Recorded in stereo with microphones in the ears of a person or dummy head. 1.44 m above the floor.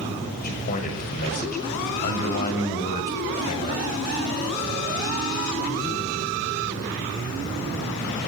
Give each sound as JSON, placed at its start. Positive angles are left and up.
{"t": 0.4, "sound": "a man speaking", "side_deg": 50, "distance_m": 6.0}